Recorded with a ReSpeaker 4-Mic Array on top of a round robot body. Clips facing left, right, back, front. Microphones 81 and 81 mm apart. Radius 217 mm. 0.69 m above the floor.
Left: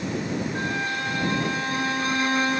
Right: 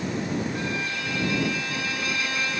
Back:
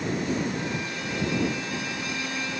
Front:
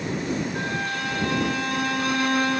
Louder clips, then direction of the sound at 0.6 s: Left 2 dB, front 4 dB; 35° left.